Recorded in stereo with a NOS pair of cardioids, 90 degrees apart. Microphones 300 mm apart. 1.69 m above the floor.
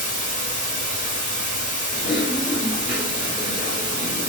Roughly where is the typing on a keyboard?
Ahead left.